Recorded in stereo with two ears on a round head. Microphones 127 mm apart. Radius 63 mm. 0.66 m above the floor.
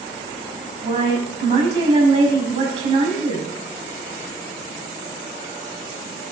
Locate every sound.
0.8 s a woman speaking: 45° right (ahead or behind), 5.5 m